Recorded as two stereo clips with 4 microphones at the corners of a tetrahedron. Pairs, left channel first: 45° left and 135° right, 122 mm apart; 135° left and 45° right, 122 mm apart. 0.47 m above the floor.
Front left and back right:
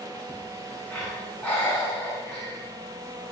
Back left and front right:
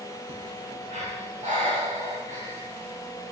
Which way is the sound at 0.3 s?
30° right.